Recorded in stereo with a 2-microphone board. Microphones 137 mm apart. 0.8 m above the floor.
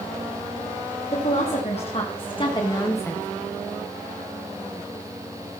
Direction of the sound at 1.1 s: 55° left (ahead or behind).